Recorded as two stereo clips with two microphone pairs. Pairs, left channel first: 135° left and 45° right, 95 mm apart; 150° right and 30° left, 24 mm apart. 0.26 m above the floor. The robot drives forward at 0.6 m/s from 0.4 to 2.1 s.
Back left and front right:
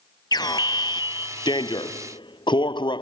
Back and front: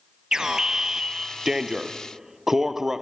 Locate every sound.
0.3 s an alarm: 95° left; by 3.0 s 110° left